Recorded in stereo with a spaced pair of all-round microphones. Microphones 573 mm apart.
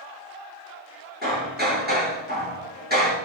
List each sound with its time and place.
1.2 s hammering: 15° right (ahead or behind), 9 m